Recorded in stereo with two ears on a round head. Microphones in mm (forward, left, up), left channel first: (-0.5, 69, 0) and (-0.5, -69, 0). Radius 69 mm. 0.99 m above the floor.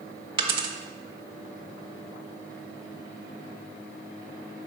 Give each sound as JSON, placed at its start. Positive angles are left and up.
{"t": 0.4, "sound": "a dropped coin", "side_deg": -35, "distance_m": 0.7}